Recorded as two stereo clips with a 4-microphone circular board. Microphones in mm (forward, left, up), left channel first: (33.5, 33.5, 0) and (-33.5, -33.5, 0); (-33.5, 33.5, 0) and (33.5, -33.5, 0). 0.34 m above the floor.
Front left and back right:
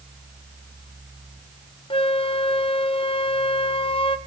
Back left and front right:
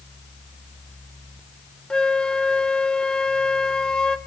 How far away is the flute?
About 1.0 m.